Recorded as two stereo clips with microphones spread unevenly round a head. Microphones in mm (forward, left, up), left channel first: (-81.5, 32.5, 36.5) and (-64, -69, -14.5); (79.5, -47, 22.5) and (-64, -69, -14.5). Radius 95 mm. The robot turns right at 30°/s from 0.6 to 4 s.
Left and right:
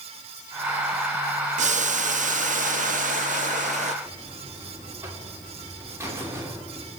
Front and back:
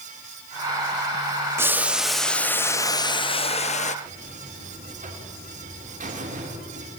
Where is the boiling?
95° right, 0.6 m; by 4.0 s 20° right, 0.6 m.